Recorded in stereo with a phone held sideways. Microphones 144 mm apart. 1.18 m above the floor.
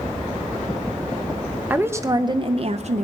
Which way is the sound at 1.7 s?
10° right (ahead or behind).